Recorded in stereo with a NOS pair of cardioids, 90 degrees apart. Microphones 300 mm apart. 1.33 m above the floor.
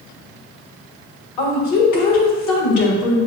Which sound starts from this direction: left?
A woman speaking, at 1.4 s.